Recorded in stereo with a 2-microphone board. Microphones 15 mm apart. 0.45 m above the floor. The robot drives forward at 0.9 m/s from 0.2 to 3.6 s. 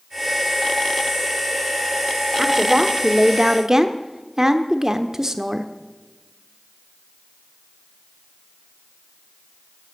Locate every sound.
2.4 s a woman speaking: 20° right (ahead or behind), 1.4 m; by 5.7 s 30° right (ahead or behind), 0.9 m